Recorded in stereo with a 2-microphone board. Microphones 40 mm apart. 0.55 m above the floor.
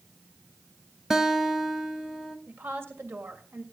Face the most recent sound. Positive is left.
turn(degrees=-70)  # may be behind; listen again after turning